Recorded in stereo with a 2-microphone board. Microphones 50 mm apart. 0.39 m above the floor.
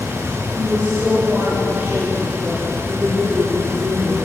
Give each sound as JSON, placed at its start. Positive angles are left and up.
{"t": 0.6, "sound": "a woman speaking", "side_deg": -30, "distance_m": 8.5}